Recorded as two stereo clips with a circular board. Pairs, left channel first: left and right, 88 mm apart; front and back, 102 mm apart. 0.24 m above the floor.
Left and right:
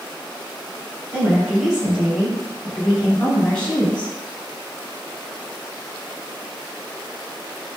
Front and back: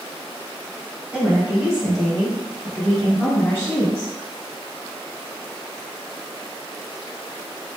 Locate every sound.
1.1 s a woman speaking: 135° right, 1.6 m; by 4.1 s 25° left, 1.8 m